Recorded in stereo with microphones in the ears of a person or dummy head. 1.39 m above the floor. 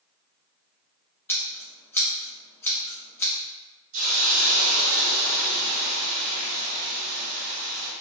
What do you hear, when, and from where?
1.3 s scissors: 10° left (ahead or behind), 0.7 m
3.9 s a hiss: 50° right (ahead or behind), 1.4 m